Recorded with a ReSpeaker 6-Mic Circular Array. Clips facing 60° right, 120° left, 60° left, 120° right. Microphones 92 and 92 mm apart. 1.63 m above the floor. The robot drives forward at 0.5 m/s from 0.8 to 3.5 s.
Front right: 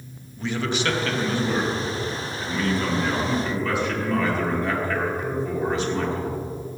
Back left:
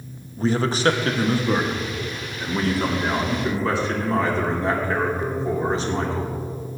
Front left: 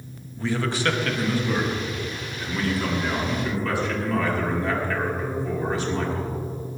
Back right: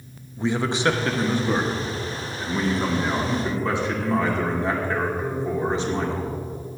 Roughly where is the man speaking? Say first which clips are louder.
Back left 5 dB, back right 2 dB; behind.